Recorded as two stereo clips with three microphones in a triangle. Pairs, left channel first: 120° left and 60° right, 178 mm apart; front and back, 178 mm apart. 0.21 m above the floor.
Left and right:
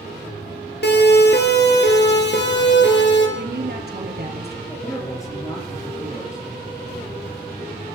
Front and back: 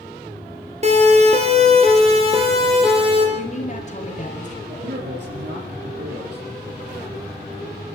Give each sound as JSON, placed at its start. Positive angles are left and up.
{"t": 0.8, "sound": "a siren", "azimuth_deg": 130, "distance_m": 4.0}
{"t": 3.4, "sound": "a woman speaking", "azimuth_deg": -45, "distance_m": 4.0}
{"t": 4.7, "sound": "a man speaking", "azimuth_deg": -170, "distance_m": 8.0}